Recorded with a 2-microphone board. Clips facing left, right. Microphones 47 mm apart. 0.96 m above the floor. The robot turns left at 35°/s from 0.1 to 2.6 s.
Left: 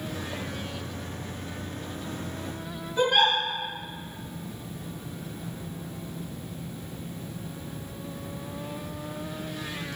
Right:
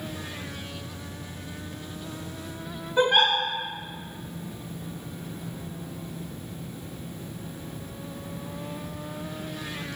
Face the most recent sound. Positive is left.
turn(degrees=-50)  # may be behind; listen again after turning